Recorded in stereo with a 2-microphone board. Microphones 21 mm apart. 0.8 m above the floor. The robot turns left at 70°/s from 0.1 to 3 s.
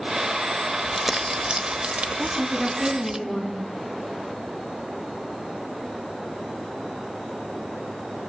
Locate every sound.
0.8 s crumpling: straight ahead, 1.2 m; by 3.2 s 150° right, 1.2 m
2.2 s a woman speaking: 170° right, 7 m; by 3.5 s 135° left, 7 m